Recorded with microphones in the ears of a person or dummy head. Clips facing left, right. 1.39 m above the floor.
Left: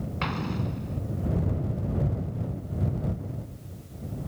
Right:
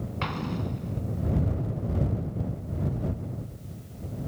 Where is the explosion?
Centre (ahead or behind).